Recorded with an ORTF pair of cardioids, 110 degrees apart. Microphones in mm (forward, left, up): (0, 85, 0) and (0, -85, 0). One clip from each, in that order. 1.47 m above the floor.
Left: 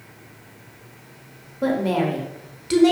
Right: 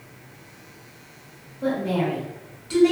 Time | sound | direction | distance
1.6 | a woman speaking | 45° left | 0.8 m